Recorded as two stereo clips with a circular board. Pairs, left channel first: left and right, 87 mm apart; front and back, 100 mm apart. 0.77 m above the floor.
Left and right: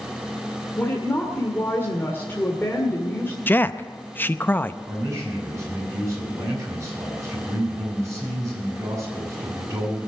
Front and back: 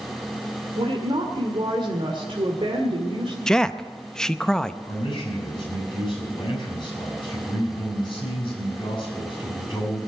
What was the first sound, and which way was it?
A woman speaking, 155° left.